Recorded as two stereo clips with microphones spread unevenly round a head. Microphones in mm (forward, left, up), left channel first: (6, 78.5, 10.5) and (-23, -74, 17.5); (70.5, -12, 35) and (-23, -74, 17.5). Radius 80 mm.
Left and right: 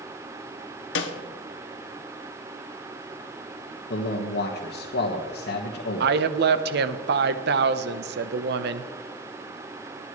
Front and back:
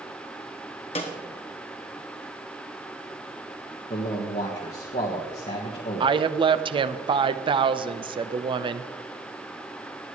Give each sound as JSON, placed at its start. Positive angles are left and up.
{"t": 0.9, "sound": "a snare drum", "azimuth_deg": 85, "distance_m": 1.2}
{"t": 3.9, "sound": "a man speaking", "azimuth_deg": 75, "distance_m": 1.5}
{"t": 6.0, "sound": "a woman speaking", "azimuth_deg": -110, "distance_m": 0.8}